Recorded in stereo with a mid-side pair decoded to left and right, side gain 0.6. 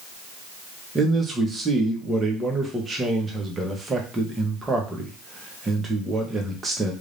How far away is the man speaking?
About 1.5 m.